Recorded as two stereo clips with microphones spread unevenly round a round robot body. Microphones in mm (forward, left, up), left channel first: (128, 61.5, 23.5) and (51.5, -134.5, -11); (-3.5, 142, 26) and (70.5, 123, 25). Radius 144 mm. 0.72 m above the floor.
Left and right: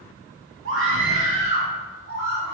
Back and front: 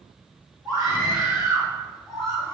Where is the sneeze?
No sneeze in this recording.